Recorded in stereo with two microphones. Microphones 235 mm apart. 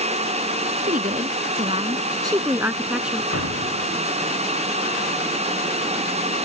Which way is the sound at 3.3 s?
85° right.